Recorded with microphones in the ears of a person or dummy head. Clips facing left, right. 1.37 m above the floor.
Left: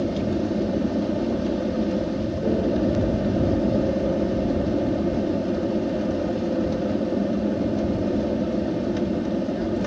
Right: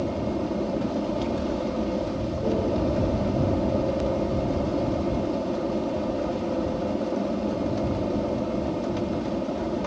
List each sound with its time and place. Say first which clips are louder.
0.0 s an aircraft: left 3 dB; 15° left (ahead or behind)